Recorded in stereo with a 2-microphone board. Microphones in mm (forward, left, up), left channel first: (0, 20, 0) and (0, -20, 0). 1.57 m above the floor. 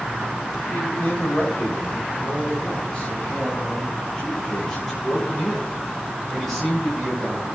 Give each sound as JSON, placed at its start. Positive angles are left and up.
{"t": 0.7, "sound": "a man speaking", "side_deg": 40, "distance_m": 4.0}